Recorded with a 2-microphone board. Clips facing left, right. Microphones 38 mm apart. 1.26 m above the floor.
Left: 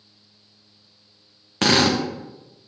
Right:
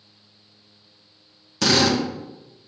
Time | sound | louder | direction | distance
1.6 | a drill | left 1 dB | 40° left (ahead or behind) | 1.1 m